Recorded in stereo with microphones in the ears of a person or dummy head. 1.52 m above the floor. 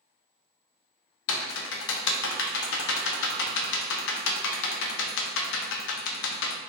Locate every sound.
1.3 s typing on a keyboard: 70° left (ahead or behind), 0.6 m